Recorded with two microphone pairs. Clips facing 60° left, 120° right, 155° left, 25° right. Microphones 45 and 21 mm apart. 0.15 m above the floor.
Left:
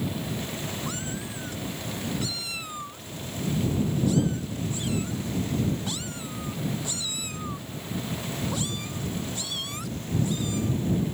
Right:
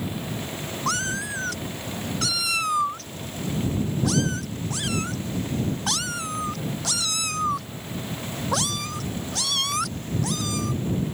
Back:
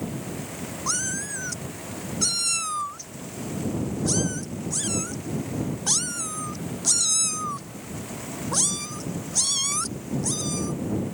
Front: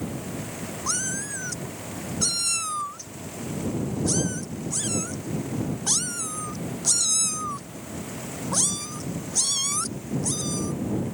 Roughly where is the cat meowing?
Behind right.